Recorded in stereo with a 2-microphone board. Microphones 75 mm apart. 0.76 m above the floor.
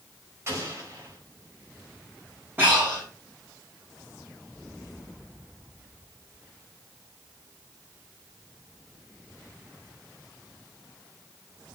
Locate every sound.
0.5 s an explosion: 35° right (ahead or behind), 4 m
2.6 s breathing: 25° right (ahead or behind), 8 m